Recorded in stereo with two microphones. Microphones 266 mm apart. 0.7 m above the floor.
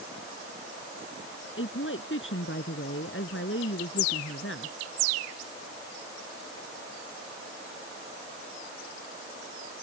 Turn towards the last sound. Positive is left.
turn(degrees=50)  # may be behind; listen again after turning